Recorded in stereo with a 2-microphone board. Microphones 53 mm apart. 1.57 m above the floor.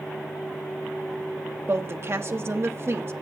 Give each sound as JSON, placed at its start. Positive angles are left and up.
{"t": 1.7, "sound": "a woman speaking", "side_deg": -50, "distance_m": 0.9}